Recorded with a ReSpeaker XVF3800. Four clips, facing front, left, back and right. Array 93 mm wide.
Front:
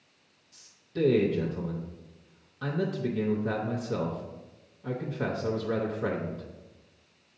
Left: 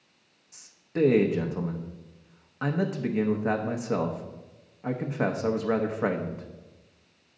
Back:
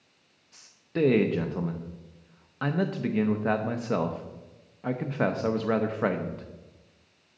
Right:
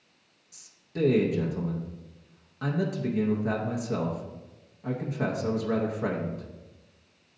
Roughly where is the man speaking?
Behind left.